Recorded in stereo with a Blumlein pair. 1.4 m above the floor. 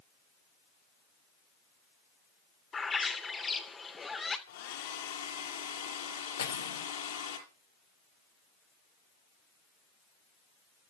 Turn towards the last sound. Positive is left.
turn(degrees=65)